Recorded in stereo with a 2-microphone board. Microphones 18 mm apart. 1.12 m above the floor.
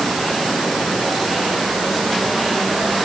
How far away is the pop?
I don't hear a pop.